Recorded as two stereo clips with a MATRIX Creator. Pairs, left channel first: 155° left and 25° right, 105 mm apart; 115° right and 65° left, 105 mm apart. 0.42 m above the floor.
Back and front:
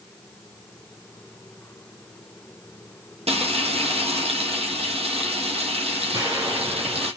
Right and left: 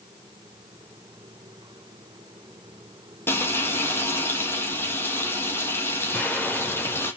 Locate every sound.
3.3 s frying: 45° right, 2.5 m
6.1 s an explosion: 45° right, 1.7 m